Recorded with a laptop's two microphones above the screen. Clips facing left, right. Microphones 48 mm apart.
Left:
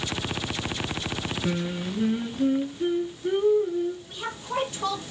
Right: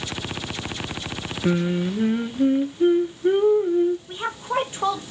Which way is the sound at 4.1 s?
30° right (ahead or behind).